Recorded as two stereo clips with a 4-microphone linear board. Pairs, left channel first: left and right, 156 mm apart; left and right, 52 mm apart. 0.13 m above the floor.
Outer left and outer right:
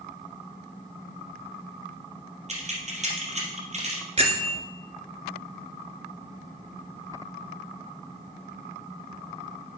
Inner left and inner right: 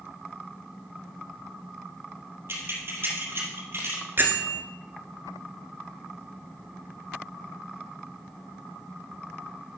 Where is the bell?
45° right (ahead or behind), 1.5 m.